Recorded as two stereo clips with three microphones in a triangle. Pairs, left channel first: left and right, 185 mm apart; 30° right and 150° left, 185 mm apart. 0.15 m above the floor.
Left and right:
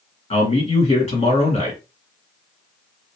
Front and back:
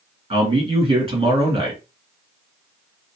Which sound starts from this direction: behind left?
A man speaking, at 0.3 s.